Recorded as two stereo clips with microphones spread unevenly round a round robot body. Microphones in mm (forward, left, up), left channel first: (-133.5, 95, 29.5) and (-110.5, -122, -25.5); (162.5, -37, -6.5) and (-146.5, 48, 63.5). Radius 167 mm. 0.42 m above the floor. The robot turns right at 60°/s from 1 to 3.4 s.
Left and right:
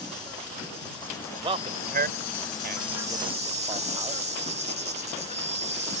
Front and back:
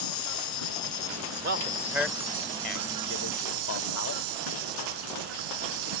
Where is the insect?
15° left; by 6.0 s 160° left.